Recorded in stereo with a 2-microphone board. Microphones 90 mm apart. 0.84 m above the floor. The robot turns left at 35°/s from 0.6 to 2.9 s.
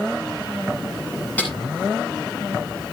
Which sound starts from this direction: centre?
A snare drum, at 1.4 s.